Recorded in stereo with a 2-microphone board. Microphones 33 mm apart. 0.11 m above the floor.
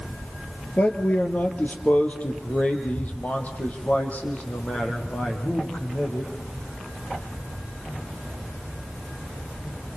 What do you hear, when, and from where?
0.8 s a man speaking: 40° left (ahead or behind), 2 m; by 6.3 s 45° left (ahead or behind), 6.5 m